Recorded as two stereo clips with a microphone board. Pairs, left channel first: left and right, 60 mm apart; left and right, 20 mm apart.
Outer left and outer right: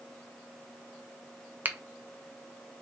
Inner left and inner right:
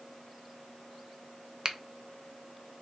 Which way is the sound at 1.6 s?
30° right (ahead or behind).